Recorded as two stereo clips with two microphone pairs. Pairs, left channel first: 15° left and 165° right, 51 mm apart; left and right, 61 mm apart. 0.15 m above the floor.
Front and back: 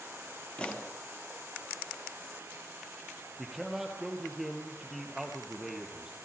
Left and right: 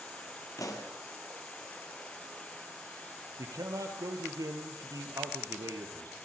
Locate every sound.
0.6 s a pop: 80° left, 3 m
3.4 s a man speaking: 80° right, 3.5 m